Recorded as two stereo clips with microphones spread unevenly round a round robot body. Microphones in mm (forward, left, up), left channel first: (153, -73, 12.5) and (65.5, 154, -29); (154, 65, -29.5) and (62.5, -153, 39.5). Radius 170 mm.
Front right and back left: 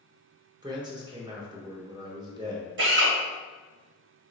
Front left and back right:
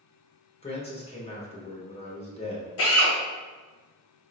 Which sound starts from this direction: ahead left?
A man speaking, at 0.6 s.